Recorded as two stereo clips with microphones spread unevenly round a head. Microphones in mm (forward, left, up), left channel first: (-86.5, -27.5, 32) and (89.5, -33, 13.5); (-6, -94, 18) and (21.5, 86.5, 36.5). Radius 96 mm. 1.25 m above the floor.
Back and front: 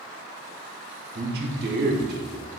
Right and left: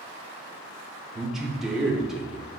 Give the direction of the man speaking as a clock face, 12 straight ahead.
12 o'clock.